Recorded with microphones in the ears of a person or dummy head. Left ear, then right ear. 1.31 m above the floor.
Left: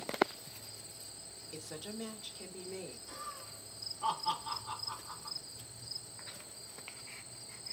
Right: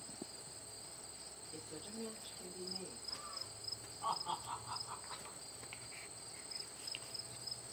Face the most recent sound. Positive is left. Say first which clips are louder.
# left 1 dB
turn(degrees=20)  # may be behind; listen again after turning